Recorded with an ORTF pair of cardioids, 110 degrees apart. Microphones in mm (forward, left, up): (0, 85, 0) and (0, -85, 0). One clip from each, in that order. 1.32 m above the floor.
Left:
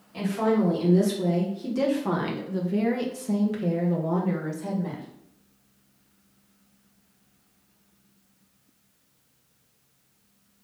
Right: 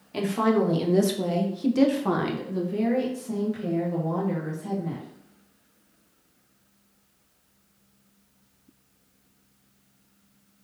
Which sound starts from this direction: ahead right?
A woman speaking, at 0.1 s.